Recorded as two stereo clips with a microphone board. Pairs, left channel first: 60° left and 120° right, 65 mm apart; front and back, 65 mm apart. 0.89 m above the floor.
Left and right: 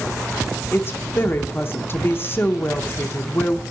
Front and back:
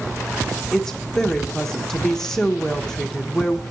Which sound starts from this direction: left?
A woman speaking, at 0.7 s.